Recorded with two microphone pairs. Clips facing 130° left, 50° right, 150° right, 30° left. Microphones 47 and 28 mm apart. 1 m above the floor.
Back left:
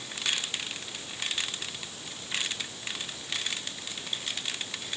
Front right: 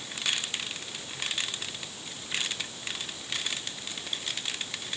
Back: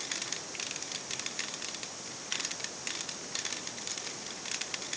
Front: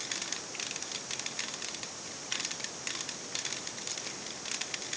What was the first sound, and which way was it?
Only background noise.